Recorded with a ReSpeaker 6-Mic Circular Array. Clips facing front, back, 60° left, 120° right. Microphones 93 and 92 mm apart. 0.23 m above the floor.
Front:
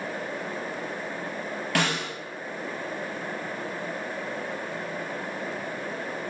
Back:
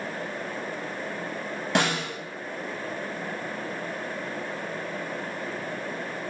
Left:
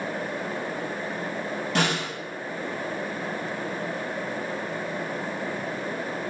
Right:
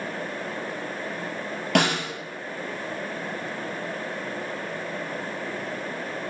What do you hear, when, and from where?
1.8 s a snare drum: 110° right, 3.5 m